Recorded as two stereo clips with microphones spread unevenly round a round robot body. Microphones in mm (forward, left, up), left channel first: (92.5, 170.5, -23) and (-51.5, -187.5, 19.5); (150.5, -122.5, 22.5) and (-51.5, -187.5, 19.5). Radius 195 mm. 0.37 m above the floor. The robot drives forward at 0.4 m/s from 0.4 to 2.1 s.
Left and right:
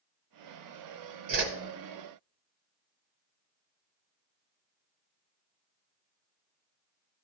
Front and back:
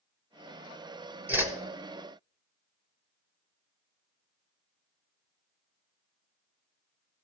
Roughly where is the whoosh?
Right.